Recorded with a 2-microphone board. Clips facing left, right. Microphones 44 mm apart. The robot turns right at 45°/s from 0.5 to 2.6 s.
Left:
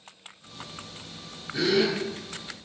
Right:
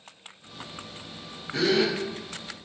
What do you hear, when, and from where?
1.5 s a gasp: 75° right (ahead or behind), 0.6 m; by 1.9 s 60° right (ahead or behind), 0.6 m